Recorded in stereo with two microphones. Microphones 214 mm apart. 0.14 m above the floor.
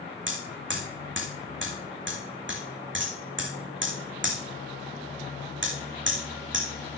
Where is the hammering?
60° right (ahead or behind), 3.5 m.